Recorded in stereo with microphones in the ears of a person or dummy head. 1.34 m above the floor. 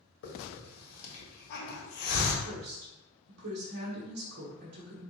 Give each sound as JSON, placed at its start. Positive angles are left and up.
{"t": 0.2, "sound": "a hiss", "side_deg": 80, "distance_m": 1.3}
{"t": 2.5, "sound": "a woman speaking", "side_deg": -55, "distance_m": 1.0}